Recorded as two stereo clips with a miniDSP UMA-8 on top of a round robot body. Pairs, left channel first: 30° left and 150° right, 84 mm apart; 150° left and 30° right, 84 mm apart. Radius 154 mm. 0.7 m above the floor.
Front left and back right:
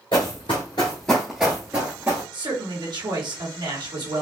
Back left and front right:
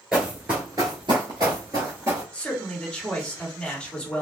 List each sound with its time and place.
0.1 s running footsteps: 55° left, 0.8 m; by 2.2 s 90° right, 1.0 m
2.3 s a man speaking: 130° right, 1.7 m